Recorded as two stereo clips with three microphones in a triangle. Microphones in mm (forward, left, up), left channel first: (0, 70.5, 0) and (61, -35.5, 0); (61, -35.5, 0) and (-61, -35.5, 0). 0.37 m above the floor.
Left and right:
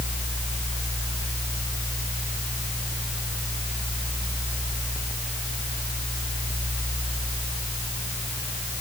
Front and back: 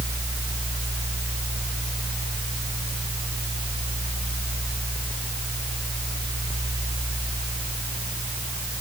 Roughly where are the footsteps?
I don't hear footsteps.